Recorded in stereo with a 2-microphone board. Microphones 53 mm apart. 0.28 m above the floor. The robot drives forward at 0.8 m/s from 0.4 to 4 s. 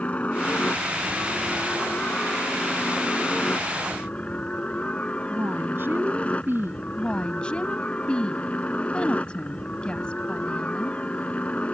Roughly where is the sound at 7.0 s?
Left.